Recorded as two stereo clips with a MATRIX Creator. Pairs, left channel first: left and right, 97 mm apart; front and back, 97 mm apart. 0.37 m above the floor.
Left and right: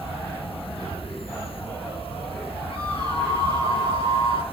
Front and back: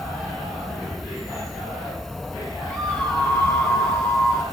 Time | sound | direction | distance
0.0 | an insect | 90° left | 2.5 m
2.7 | a scream | 85° left | 8.5 m